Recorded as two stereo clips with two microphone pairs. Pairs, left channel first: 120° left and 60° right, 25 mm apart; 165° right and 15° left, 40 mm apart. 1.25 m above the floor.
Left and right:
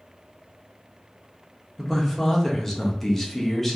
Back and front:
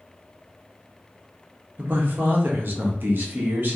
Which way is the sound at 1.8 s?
45° left.